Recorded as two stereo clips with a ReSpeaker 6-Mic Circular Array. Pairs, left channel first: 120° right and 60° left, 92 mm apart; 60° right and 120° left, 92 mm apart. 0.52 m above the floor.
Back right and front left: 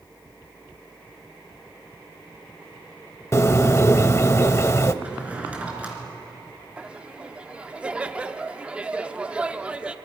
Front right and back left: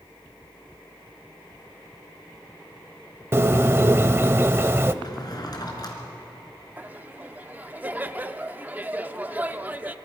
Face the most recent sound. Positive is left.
turn(degrees=110)